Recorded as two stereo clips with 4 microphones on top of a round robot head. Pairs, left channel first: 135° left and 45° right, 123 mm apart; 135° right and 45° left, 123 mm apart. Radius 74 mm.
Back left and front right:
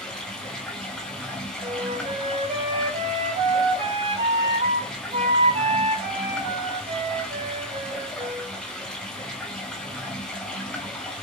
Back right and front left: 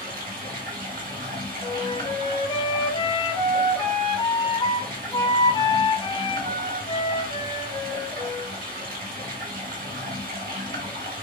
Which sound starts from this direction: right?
A flute, at 1.6 s.